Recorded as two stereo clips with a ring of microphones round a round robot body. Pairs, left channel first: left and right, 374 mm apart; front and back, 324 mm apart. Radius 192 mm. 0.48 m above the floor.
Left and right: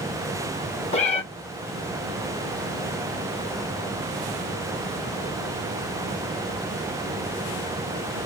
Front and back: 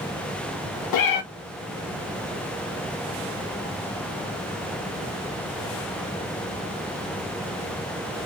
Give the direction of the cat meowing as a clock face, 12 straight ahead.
11 o'clock.